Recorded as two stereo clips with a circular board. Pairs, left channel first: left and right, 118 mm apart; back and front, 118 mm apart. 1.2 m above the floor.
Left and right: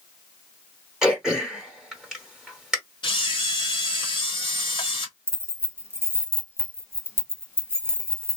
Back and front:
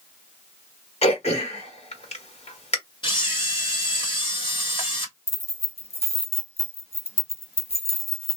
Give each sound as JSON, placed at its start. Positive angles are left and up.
{"t": 1.0, "sound": "throat clearing", "azimuth_deg": -175, "distance_m": 1.8}
{"t": 3.0, "sound": "a camera shutter", "azimuth_deg": 135, "distance_m": 1.1}
{"t": 5.3, "sound": "keys jangling", "azimuth_deg": -160, "distance_m": 0.8}